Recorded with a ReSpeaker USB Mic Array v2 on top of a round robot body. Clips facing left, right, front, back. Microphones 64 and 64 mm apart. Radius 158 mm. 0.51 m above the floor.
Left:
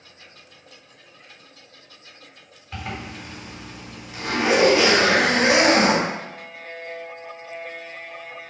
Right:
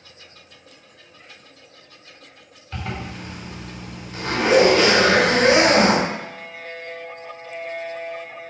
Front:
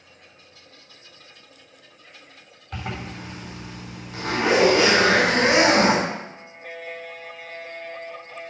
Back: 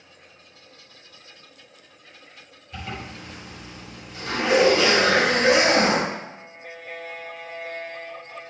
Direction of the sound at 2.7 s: 10° left.